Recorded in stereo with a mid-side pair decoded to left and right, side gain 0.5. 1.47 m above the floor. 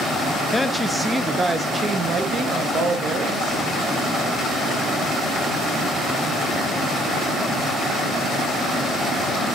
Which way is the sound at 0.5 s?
10° left.